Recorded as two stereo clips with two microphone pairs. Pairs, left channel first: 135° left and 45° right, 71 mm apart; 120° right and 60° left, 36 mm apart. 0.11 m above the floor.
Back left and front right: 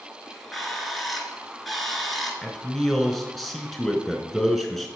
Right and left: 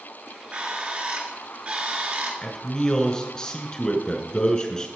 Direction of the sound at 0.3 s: 45° left.